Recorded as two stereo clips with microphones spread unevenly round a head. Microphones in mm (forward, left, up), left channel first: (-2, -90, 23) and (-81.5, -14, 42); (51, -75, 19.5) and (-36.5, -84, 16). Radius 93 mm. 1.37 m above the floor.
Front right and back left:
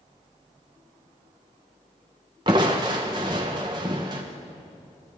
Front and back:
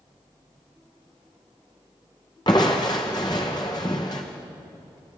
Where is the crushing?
70° left, 1.2 m.